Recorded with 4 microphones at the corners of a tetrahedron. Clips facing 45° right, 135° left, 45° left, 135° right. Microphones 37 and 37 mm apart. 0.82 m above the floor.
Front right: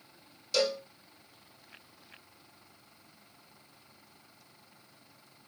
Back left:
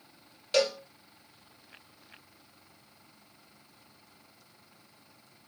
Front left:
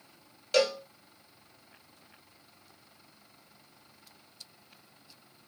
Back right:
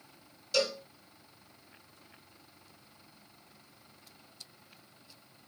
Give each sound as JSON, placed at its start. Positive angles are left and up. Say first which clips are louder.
{"t": 0.5, "sound": "a cowbell", "louder": "back left 2 dB, front left 5 dB", "azimuth_deg": 80, "distance_m": 3.0}